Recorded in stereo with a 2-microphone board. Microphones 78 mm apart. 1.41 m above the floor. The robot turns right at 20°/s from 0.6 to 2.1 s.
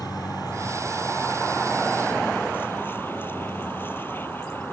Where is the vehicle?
120° left; by 4.7 s 150° left.